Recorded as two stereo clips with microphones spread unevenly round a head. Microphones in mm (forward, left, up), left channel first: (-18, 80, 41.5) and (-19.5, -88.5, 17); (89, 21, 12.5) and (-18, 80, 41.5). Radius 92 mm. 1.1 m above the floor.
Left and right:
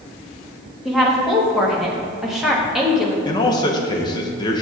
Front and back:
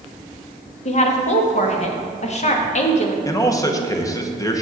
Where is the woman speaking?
Straight ahead, 1.3 m.